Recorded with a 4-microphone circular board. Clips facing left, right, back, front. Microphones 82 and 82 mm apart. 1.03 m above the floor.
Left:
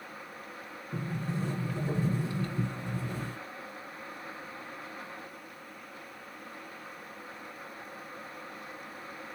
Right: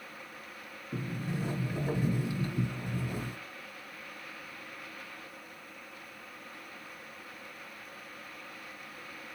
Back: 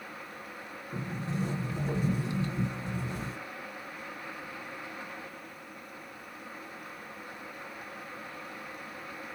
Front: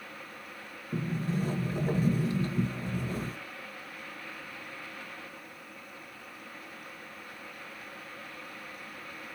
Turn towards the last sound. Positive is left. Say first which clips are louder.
# left 1 dB, front 3 dB
turn(degrees=-25)